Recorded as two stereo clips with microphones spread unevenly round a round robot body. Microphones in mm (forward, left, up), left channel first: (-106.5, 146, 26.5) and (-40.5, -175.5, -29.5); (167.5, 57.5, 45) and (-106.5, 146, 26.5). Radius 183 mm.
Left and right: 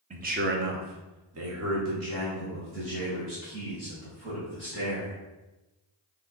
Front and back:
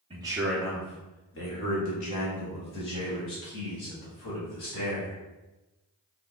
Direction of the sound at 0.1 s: 135° right.